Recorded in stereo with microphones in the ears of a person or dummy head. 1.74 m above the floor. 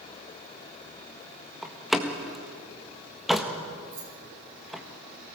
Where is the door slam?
Centre (ahead or behind), 1.6 m.